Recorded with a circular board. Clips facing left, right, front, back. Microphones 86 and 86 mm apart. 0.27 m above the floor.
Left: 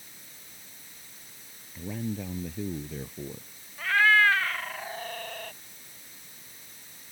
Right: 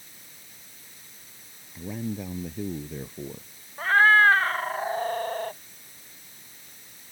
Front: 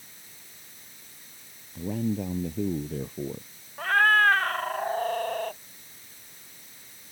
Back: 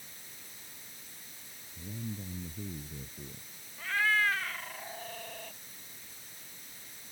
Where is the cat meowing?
35° right.